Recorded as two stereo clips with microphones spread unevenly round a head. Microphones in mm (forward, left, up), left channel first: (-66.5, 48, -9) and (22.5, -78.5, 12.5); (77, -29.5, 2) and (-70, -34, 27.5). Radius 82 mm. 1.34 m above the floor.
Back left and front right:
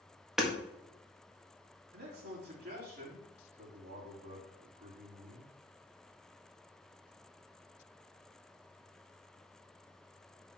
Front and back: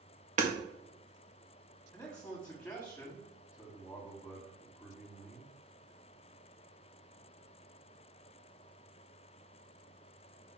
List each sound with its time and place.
0.4 s hammering: 140° right, 1.7 m
1.9 s a man speaking: 80° right, 3.5 m